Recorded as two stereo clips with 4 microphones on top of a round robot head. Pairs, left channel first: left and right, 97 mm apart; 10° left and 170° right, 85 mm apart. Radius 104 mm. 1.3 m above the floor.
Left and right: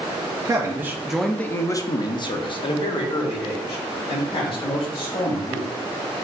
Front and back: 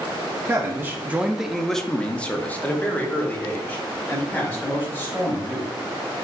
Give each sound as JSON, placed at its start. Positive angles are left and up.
{"t": 0.5, "sound": "a man speaking", "azimuth_deg": -125, "distance_m": 0.6}